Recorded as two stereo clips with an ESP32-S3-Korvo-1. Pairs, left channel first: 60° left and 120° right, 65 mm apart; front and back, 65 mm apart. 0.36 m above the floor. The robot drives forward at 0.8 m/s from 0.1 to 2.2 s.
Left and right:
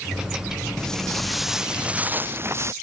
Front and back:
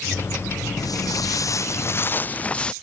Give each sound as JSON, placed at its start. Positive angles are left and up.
{"t": 0.8, "sound": "footsteps", "azimuth_deg": -20}